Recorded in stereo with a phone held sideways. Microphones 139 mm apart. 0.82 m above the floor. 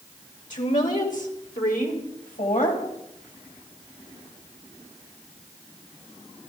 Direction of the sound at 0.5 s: 65° left (ahead or behind).